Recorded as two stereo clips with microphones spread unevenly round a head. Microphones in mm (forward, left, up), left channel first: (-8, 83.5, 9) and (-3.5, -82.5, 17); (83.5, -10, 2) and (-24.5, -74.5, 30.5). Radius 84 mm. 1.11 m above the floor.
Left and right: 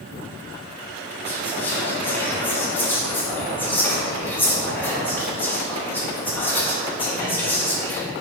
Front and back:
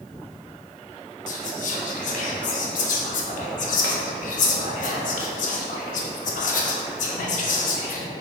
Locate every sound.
1.3 s whispering: 10° left, 0.6 m